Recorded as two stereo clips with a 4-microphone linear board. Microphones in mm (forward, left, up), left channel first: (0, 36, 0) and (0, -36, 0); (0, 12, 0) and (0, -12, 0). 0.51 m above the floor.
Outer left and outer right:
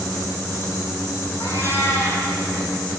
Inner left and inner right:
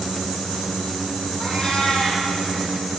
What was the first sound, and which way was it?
A cat meowing, 35° left (ahead or behind).